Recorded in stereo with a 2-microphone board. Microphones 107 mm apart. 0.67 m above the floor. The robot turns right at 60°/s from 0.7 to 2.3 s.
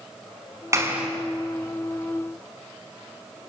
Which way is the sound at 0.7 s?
30° right (ahead or behind).